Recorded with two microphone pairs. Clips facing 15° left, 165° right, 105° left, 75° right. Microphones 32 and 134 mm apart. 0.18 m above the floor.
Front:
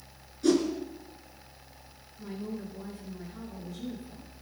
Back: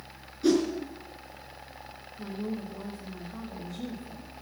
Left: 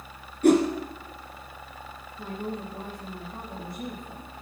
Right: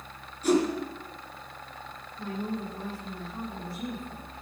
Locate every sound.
0.4 s a whoosh: 115° left, 3 m
2.2 s a woman speaking: 175° left, 7.5 m